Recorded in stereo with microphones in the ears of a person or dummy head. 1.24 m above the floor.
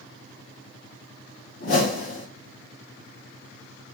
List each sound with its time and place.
1.6 s a whoosh: 60° left (ahead or behind), 1.1 m